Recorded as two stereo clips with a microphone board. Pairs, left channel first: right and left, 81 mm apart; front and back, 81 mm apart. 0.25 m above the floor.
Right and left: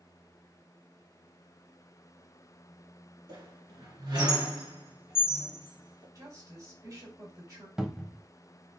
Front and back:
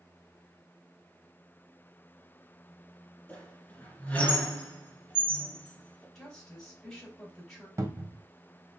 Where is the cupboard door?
165° left, 0.6 m.